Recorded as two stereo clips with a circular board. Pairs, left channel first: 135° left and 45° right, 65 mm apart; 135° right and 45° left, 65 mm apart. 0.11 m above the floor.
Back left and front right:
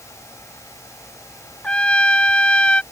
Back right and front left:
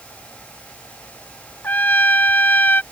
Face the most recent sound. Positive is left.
turn(degrees=-170)